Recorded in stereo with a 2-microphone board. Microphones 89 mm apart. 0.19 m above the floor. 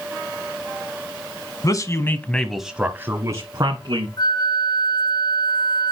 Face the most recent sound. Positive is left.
turn(degrees=45)  # may be behind; listen again after turning